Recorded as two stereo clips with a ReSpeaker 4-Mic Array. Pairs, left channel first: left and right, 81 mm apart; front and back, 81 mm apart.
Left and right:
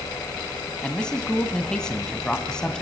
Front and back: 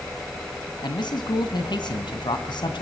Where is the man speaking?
10° left, 2 m.